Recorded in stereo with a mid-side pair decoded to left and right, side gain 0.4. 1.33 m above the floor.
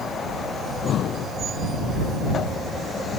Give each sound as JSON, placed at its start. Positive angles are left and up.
{"t": 0.6, "sound": "breathing", "azimuth_deg": 70}